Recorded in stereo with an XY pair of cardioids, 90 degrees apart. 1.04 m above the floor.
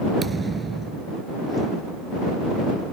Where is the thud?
35° right.